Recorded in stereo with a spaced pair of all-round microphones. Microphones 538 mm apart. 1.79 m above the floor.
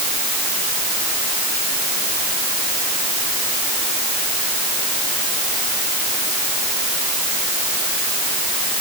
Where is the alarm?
No alarm in this recording.